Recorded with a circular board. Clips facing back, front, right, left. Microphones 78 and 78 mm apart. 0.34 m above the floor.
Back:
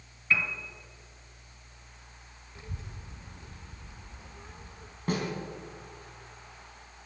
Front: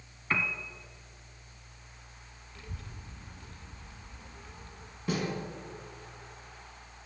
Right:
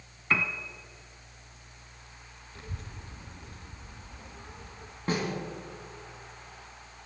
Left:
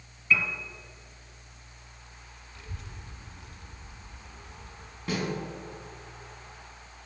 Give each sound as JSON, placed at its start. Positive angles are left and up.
{"t": 0.3, "sound": "a piano", "azimuth_deg": -55, "distance_m": 1.0}
{"t": 2.5, "sound": "a child speaking", "azimuth_deg": -120, "distance_m": 0.6}
{"t": 5.1, "sound": "a snare drum", "azimuth_deg": -140, "distance_m": 2.5}